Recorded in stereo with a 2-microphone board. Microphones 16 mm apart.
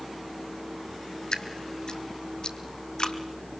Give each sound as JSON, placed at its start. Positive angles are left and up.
{"t": 1.3, "sound": "dripping", "side_deg": 70, "distance_m": 1.4}